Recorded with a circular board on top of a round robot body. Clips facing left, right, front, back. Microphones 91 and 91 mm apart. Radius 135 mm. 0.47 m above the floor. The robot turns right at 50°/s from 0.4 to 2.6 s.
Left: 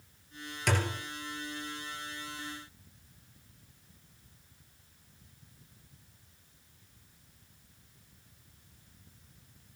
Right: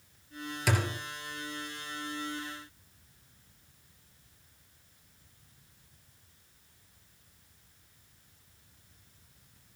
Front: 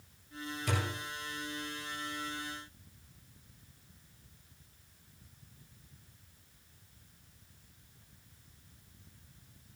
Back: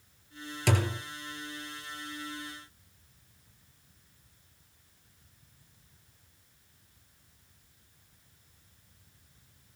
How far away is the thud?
About 3 m.